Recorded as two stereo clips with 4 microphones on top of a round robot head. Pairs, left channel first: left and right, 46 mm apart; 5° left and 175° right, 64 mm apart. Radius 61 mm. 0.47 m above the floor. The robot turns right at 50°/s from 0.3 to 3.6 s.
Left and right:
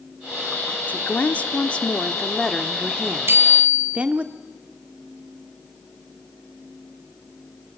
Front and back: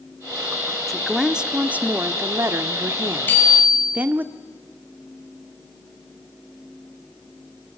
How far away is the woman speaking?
About 0.9 m.